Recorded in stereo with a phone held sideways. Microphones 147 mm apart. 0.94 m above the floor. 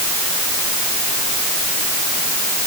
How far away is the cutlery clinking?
I don't hear cutlery clinking.